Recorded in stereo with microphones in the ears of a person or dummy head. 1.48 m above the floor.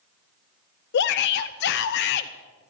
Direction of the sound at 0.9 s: 65° left (ahead or behind).